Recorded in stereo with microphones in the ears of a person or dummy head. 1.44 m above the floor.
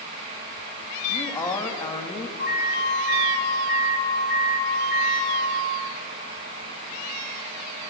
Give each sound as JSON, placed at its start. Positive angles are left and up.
{"t": 1.1, "sound": "a man speaking", "side_deg": 10, "distance_m": 3.0}
{"t": 2.4, "sound": "an alarm", "side_deg": 55, "distance_m": 6.5}